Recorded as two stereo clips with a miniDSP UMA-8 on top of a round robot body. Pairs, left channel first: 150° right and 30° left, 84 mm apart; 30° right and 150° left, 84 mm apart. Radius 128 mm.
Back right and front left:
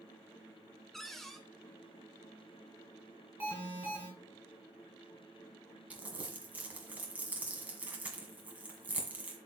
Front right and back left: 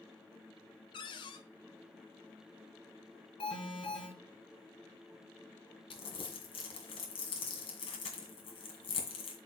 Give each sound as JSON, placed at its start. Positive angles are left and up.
{"t": 0.9, "sound": "a cupboard door", "azimuth_deg": -65, "distance_m": 0.5}
{"t": 3.4, "sound": "an alarm", "azimuth_deg": -45, "distance_m": 5.5}
{"t": 5.9, "sound": "crumpling", "azimuth_deg": -45, "distance_m": 1.9}